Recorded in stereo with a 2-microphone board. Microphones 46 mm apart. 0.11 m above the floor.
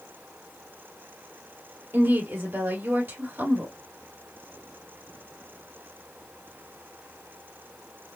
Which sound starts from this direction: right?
A woman speaking, at 1.9 s.